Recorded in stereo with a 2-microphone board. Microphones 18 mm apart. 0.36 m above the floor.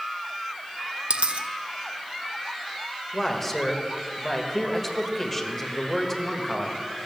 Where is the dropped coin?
85° right, 0.7 m.